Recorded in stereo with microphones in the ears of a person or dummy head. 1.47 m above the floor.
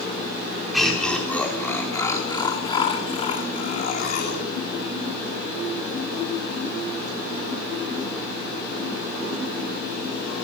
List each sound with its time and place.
0.7 s laughter: centre (ahead or behind), 5 m; by 4.4 s 60° left (ahead or behind), 4.5 m